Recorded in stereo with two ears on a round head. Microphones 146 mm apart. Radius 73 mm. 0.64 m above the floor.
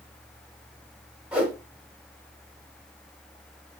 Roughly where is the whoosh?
Centre.